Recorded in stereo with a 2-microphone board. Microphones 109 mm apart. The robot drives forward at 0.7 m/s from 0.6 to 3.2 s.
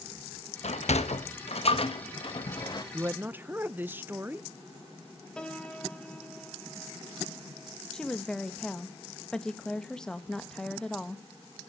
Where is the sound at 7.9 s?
5° left (ahead or behind), 1.5 m.